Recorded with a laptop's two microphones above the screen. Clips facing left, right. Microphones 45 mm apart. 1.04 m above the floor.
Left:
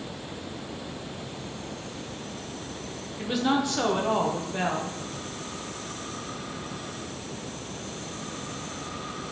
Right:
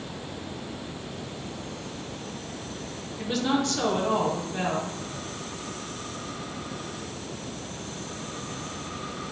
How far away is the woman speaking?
About 0.6 m.